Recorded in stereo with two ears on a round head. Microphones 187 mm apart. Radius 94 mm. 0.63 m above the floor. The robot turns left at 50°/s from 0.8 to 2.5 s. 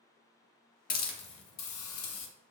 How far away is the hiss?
About 0.7 m.